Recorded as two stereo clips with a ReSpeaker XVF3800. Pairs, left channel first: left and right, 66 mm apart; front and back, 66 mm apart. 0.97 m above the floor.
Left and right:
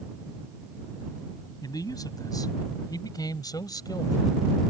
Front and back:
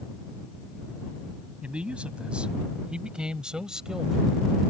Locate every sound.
1.6 s a man speaking: 105° left; by 4.4 s 100° left